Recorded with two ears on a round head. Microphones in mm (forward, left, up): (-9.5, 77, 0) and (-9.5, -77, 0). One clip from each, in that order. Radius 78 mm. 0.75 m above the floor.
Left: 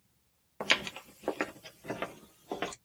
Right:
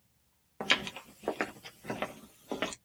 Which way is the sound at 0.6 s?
10° left (ahead or behind).